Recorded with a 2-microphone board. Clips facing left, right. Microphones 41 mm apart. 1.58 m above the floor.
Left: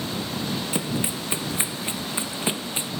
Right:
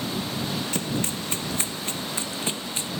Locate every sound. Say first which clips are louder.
0.7 s running footsteps: left 1 dB; 10° left (ahead or behind); by 2.9 s 20° left (ahead or behind)